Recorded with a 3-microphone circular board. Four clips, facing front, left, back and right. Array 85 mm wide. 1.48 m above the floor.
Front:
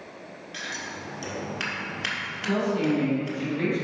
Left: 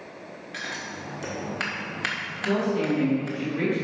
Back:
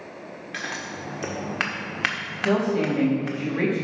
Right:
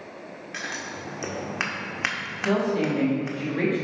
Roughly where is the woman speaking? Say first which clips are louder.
Right 1 dB, back 3 dB; behind right.